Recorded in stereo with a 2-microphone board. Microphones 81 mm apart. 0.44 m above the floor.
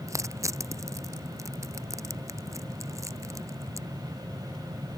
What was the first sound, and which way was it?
Crushing, 35° right (ahead or behind).